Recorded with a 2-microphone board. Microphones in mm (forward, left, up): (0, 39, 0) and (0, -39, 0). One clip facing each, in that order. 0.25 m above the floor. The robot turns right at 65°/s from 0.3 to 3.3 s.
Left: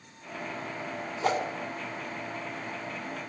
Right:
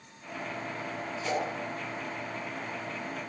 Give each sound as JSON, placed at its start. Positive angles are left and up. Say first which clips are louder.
{"t": 1.2, "sound": "a whoosh", "louder": "left 4 dB", "side_deg": 60, "distance_m": 2.5}